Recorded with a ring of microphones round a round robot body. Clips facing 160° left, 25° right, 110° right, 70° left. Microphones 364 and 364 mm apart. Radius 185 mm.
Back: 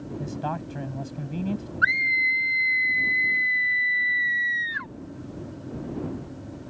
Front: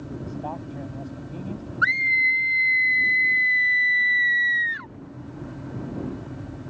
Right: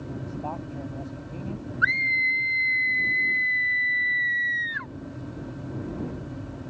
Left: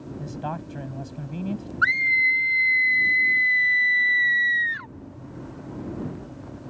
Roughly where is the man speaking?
Left.